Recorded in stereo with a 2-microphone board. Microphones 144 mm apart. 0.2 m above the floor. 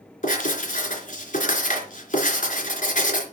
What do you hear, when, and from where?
0.2 s writing: 55° left (ahead or behind), 3.5 m